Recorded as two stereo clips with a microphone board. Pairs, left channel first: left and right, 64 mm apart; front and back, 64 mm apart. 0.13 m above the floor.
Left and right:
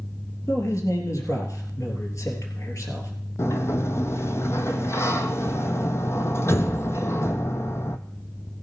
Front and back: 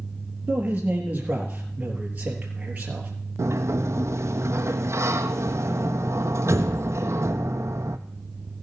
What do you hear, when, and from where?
0.5 s a man speaking: 115° left, 3.5 m
3.4 s a sliding door: 135° left, 0.9 m